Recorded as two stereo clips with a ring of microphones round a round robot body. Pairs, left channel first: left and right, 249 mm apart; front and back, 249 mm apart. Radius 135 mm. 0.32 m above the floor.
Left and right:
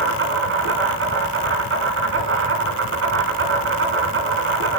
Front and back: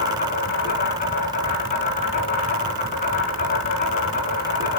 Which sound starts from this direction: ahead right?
An insect, at 0.0 s.